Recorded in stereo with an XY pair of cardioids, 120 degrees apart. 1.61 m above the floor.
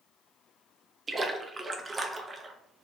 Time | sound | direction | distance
1.1 | a splash | 30° right | 0.6 m